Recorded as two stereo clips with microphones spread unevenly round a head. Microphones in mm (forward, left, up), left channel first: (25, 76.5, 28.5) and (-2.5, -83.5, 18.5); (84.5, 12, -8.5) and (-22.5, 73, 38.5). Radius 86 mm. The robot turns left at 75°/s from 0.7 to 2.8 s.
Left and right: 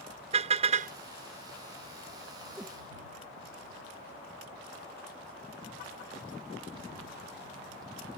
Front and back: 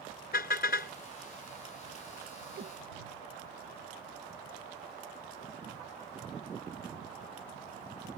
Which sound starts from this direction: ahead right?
A car horn, at 0.3 s.